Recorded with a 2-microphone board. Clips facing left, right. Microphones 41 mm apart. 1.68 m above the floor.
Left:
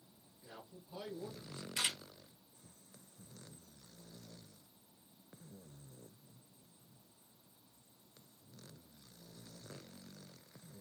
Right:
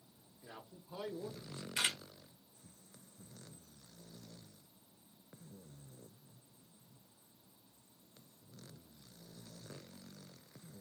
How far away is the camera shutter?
About 1.7 m.